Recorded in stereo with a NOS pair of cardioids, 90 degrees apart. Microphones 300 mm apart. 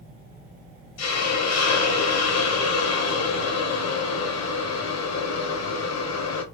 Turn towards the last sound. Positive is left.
turn(degrees=60)